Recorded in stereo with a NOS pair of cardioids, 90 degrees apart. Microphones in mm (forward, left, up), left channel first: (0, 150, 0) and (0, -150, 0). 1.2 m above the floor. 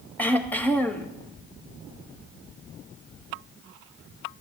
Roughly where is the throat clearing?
Ahead.